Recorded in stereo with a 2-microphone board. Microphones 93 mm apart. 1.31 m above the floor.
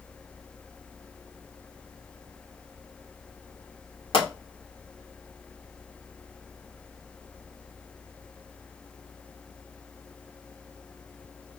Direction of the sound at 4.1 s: 75° left (ahead or behind).